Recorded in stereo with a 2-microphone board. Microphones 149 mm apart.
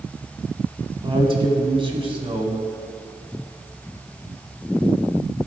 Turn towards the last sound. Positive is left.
turn(degrees=-35)  # may be behind; listen again after turning